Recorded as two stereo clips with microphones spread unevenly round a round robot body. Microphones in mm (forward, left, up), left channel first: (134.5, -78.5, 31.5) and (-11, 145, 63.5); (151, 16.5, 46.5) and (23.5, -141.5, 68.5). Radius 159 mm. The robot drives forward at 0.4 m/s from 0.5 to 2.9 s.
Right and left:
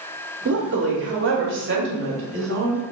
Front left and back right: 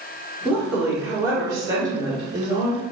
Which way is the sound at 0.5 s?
140° left.